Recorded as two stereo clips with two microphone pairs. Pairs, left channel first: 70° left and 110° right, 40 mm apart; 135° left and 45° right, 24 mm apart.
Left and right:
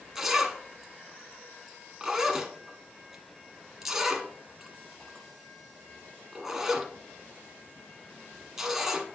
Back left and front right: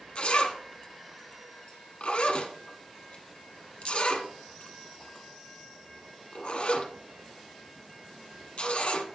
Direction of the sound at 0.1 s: 170° left.